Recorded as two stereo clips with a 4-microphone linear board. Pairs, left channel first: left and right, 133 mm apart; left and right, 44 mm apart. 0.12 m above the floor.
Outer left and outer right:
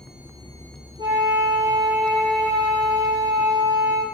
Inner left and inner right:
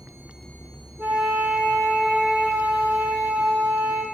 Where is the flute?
35° right (ahead or behind), 4.5 m.